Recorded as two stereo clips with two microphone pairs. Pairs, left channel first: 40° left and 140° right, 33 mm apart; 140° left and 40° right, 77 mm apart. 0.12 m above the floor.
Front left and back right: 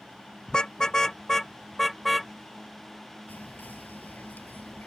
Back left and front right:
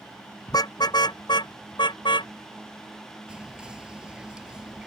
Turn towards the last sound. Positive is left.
turn(degrees=35)